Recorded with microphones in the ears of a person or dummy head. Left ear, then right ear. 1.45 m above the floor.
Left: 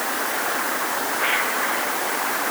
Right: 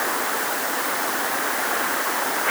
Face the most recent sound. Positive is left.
No sound to turn to.